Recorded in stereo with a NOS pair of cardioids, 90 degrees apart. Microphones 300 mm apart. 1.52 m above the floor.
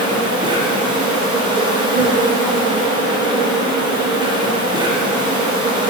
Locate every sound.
0.0 s an insect: 15° right, 1.0 m